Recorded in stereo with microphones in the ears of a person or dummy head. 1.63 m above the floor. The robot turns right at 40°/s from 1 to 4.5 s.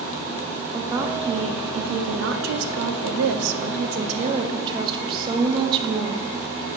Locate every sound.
0.7 s a woman speaking: 165° right, 0.7 m; by 6.7 s 25° right, 0.7 m